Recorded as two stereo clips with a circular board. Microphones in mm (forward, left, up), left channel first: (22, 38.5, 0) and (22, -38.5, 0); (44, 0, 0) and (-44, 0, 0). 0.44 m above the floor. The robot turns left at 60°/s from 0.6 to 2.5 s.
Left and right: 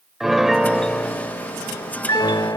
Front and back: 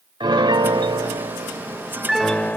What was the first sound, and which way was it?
A piano, 175° right.